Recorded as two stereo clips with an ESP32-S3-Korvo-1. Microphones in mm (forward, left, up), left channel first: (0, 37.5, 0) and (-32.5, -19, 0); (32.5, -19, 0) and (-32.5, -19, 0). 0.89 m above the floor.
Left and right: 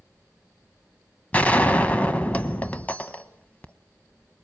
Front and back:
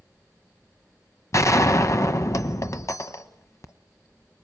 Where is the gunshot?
Straight ahead, 1.0 m.